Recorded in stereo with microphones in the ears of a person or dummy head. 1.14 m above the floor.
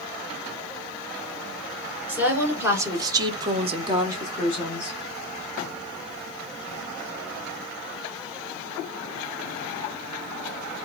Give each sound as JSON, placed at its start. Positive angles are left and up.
{"t": 2.1, "sound": "a woman speaking", "side_deg": -10, "distance_m": 1.5}